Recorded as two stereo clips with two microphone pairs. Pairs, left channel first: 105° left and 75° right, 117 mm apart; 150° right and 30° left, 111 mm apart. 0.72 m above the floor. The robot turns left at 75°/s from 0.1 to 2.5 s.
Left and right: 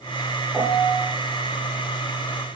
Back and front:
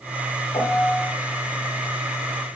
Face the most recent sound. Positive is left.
turn(degrees=60)